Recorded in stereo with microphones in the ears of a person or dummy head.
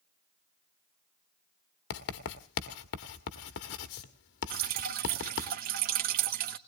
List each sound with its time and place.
1.9 s writing: 60° left (ahead or behind), 1.5 m
4.5 s dripping: 50° right (ahead or behind), 1.0 m